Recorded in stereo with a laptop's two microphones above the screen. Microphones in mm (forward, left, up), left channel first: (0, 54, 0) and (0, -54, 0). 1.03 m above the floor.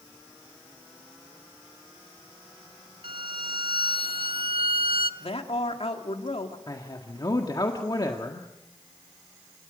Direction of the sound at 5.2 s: 70° left (ahead or behind).